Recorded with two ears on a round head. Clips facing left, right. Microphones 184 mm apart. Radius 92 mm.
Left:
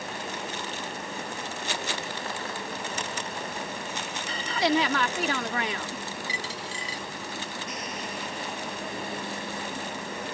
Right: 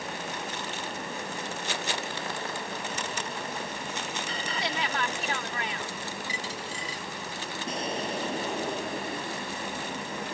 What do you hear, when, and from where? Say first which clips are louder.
4.5 s a woman speaking: left 10 dB; 65° left (ahead or behind)
6.3 s a dropped coin: even; 55° left (ahead or behind)
7.7 s an explosion: right 4 dB; 30° right (ahead or behind)